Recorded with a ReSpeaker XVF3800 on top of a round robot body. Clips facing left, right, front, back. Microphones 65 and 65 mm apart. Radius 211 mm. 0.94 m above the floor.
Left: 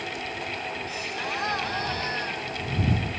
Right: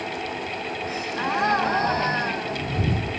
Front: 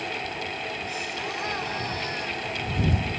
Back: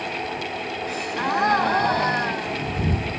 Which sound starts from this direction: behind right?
A gasp, at 0.9 s.